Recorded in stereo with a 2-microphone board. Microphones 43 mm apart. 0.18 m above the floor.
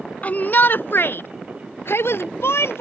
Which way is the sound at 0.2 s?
40° left (ahead or behind).